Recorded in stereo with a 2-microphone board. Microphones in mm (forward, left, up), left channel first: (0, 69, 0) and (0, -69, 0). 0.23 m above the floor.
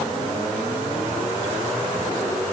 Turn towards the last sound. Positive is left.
No sound to turn to.